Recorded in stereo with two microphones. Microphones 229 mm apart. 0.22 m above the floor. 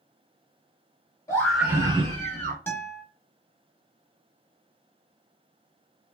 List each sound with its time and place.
1.3 s a scream: 15° left (ahead or behind), 1.0 m; by 2.6 s 45° right (ahead or behind), 1.3 m
2.7 s a guitar: 10° left (ahead or behind), 1.2 m